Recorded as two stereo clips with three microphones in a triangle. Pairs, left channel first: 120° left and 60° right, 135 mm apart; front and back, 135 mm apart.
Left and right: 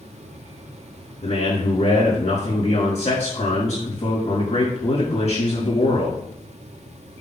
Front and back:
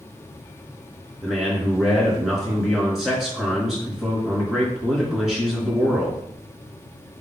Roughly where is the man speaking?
Left.